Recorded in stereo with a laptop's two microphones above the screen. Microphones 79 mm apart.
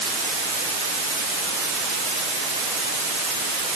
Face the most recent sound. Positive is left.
No sound to turn to.